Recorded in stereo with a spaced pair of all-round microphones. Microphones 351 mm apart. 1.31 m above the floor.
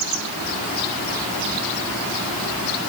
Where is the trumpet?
I don't hear a trumpet.